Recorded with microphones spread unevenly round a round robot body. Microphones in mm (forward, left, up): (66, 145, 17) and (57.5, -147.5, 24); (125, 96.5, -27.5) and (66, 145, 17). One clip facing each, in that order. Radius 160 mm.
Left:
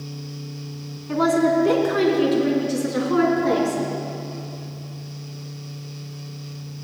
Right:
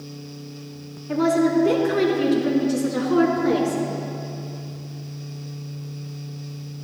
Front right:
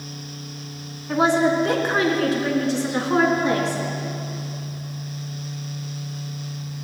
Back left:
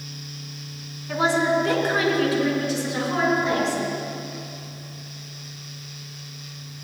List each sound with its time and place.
1.1 s a woman speaking: 10° left, 3.5 m; by 3.8 s 10° right, 4 m